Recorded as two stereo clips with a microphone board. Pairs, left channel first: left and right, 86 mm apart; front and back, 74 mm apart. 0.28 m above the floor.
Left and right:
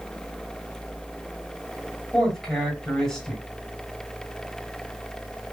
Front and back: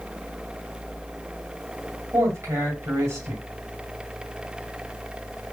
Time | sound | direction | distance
2.1 | a man speaking | 175° left | 1.9 m